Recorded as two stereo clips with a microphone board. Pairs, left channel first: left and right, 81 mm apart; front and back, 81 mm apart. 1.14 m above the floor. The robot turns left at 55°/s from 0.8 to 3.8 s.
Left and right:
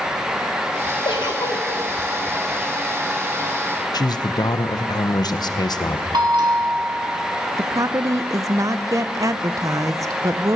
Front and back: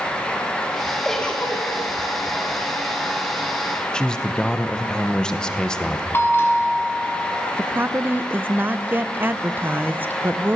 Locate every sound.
1.1 s a giggle: 85° left, 1.5 m; by 1.8 s 45° left, 1.5 m
3.9 s a man speaking: 80° left, 0.8 m
6.1 s a bell: 65° right, 2 m
7.6 s a woman speaking: 120° right, 0.5 m